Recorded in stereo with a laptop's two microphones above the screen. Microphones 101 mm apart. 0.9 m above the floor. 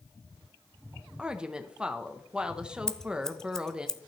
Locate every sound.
1.2 s a woman speaking: 10° right (ahead or behind), 0.7 m
2.9 s scissors: 5° left (ahead or behind), 0.5 m